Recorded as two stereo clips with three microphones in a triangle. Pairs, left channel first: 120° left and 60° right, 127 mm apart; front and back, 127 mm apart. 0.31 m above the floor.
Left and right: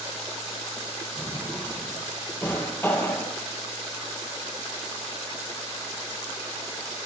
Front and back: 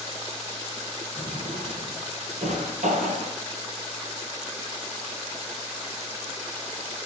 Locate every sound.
1.2 s a drawer: 170° right, 5 m